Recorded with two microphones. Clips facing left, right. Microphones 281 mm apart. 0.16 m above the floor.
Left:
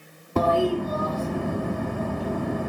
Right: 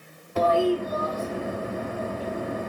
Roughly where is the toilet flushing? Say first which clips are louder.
Even; left.